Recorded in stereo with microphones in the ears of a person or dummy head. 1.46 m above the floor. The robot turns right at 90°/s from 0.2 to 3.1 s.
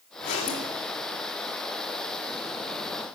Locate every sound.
0.2 s a zipper: 115° left, 1.8 m; by 0.7 s 165° left, 1.8 m